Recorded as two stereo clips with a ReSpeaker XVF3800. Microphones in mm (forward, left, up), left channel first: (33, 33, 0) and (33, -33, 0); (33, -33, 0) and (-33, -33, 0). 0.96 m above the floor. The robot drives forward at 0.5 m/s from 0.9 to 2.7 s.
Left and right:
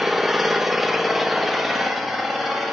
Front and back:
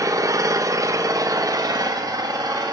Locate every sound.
0.0 s an engine running: 175° right, 0.9 m; by 2.7 s straight behind, 1.7 m